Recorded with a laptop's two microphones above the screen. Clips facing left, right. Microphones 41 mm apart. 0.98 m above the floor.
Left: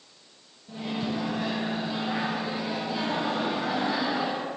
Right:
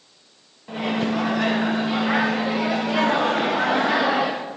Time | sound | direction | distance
0.7 | a microwave | 60° right (ahead or behind) | 0.6 m